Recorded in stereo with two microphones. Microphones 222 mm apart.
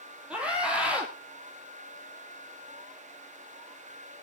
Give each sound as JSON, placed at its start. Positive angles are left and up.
{"t": 0.3, "sound": "a scream", "side_deg": -5, "distance_m": 3.0}